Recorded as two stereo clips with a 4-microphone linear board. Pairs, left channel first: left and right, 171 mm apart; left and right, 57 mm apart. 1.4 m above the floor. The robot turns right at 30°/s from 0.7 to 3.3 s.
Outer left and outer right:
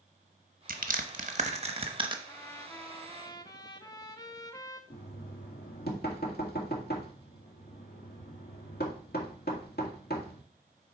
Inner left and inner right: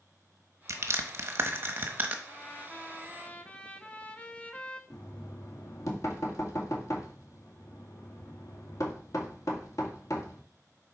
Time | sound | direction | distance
0.7 | crushing | 55° right (ahead or behind) | 1.0 m
2.3 | a trumpet | 15° left (ahead or behind) | 0.8 m
4.9 | knocking | 65° left (ahead or behind) | 1.7 m